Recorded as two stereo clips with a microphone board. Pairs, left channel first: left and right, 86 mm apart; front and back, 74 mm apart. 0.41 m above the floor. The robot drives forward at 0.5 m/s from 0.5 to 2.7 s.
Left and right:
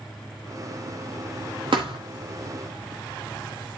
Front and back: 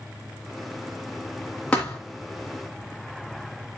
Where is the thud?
70° right, 4 m; by 2.0 s 75° right, 4 m.